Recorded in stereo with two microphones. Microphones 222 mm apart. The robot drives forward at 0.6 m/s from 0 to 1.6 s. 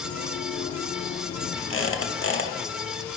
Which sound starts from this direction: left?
A squeak, at 1.7 s.